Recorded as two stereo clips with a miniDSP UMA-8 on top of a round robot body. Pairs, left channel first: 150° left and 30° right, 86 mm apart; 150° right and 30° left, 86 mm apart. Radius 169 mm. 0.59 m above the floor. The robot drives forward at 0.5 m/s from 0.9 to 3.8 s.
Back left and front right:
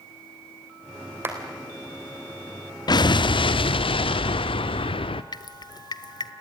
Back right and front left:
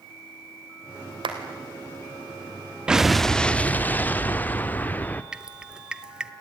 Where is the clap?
35° left, 3.5 m.